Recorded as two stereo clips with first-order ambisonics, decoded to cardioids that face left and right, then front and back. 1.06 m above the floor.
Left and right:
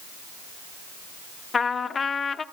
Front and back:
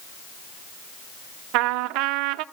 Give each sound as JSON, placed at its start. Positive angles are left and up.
{"t": 1.5, "sound": "a trumpet", "azimuth_deg": 160, "distance_m": 0.6}